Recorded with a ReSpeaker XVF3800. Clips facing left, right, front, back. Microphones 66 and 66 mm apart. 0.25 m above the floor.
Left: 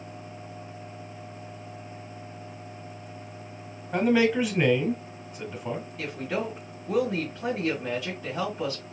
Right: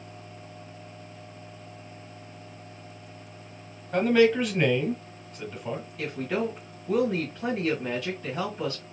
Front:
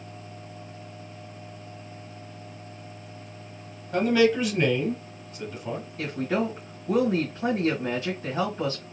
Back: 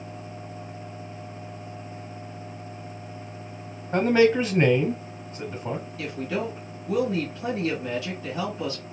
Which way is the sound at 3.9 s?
170° left.